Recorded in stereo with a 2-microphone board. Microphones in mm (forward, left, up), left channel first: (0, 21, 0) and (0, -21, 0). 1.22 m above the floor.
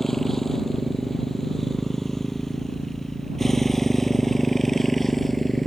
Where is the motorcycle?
5° left (ahead or behind); by 5.7 s centre (ahead or behind).